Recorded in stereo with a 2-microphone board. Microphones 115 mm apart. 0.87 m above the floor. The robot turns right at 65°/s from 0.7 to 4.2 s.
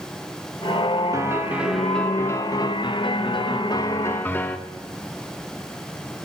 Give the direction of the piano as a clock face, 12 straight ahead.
1 o'clock.